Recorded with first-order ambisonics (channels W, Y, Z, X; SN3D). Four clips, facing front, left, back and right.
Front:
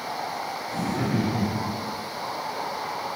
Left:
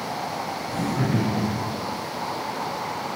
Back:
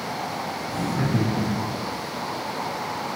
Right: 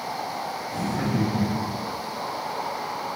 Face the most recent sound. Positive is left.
turn(degrees=25)